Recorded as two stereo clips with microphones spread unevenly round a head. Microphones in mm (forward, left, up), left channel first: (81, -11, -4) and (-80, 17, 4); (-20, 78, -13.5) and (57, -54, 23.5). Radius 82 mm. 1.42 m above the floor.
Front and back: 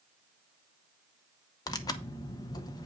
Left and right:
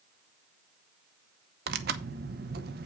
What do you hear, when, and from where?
1.7 s tearing paper: 80° right, 0.8 m